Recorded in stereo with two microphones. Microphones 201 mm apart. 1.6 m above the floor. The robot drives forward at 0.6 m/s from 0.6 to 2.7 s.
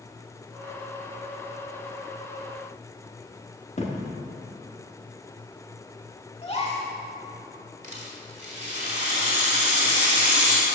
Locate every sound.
3.8 s a thud: 35° left (ahead or behind), 1.4 m
6.4 s a gasp: 30° left (ahead or behind), 1.6 m
7.8 s a rattle: 40° right (ahead or behind), 1.7 m